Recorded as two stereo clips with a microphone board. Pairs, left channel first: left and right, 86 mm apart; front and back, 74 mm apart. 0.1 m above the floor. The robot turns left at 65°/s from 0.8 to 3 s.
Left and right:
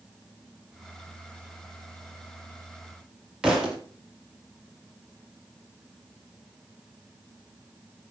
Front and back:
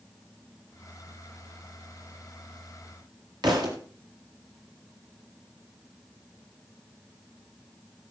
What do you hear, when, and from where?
3.4 s a thud: 175° right, 4 m